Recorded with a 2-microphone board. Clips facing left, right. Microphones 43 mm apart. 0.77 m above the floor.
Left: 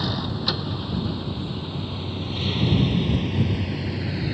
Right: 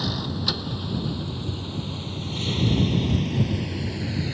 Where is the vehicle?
10° left (ahead or behind).